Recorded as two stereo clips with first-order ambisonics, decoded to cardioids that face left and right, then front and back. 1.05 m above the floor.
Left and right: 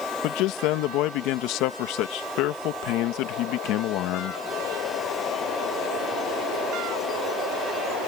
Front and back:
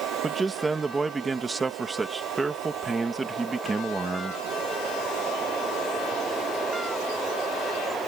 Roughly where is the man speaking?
Left.